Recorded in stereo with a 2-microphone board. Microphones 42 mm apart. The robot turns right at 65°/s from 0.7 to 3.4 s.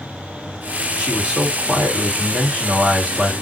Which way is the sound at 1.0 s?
150° right.